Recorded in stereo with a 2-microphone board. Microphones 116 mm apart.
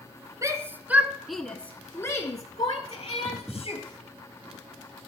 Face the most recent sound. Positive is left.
turn(degrees=55)  # may be behind; listen again after turning